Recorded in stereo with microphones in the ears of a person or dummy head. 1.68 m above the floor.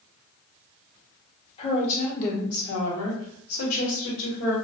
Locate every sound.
1.6 s a woman speaking: 30° left (ahead or behind), 1.1 m; by 4.5 s 70° left (ahead or behind), 1.7 m